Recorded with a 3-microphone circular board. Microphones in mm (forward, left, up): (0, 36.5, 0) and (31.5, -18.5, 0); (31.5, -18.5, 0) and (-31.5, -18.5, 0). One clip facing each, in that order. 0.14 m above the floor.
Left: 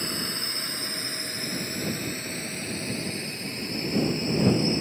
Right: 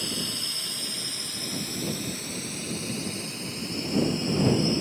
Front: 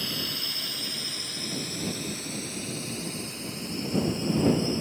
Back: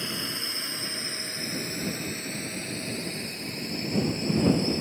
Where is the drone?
130° left; by 4.8 s 160° left.